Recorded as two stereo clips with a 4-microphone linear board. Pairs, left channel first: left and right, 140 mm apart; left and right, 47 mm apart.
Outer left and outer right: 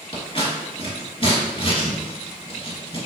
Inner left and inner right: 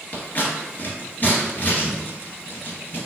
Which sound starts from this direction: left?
Scissors, at 0.1 s.